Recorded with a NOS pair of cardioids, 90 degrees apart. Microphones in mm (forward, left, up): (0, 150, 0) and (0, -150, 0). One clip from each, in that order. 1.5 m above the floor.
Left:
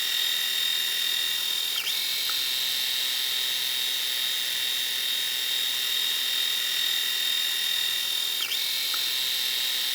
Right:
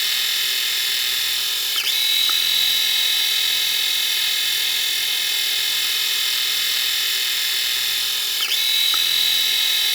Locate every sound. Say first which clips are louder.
0.0 s a machine running: right 5 dB; 50° right